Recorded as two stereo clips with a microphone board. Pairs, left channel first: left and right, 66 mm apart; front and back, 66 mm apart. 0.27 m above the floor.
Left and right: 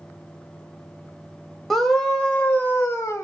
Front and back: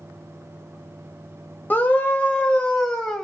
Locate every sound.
1.7 s a scream: 5° left, 1.0 m; by 3.2 s 80° left, 1.3 m